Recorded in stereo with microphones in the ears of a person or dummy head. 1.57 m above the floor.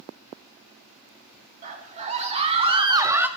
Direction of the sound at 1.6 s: 40° right (ahead or behind).